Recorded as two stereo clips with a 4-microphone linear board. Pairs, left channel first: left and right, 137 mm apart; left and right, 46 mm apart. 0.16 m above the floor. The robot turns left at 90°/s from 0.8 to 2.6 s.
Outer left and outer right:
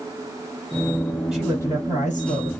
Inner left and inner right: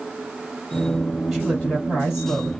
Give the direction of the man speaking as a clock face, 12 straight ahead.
6 o'clock.